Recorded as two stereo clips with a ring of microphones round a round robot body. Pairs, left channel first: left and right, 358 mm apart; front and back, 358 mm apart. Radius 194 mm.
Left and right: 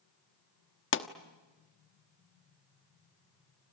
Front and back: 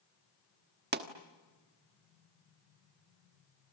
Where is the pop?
130° left, 1.3 m.